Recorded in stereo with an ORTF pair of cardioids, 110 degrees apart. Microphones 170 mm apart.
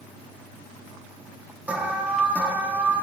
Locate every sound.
1.7 s an alarm: 10° right, 1.0 m